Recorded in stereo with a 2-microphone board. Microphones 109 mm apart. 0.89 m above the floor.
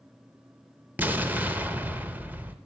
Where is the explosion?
15° right (ahead or behind), 0.8 m.